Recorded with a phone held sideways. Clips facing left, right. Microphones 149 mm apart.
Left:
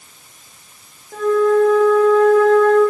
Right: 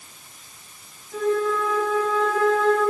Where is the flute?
60° left (ahead or behind), 4.5 m.